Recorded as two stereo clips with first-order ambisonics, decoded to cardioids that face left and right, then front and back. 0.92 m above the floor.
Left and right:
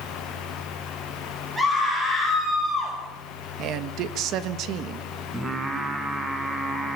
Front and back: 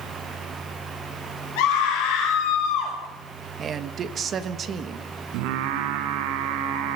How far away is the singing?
About 3.5 m.